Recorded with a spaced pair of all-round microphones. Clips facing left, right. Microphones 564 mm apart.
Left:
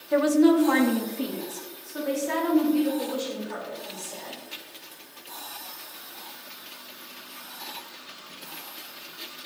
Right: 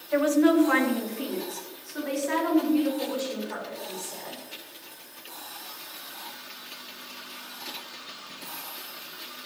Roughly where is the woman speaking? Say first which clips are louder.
Left 2 dB; left.